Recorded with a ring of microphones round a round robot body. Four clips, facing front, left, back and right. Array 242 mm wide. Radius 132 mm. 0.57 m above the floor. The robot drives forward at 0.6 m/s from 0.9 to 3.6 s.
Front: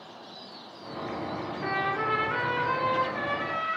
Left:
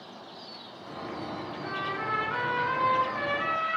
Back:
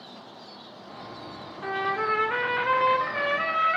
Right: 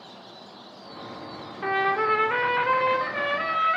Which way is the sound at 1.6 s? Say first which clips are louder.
Right 11 dB, back 2 dB; 80° right.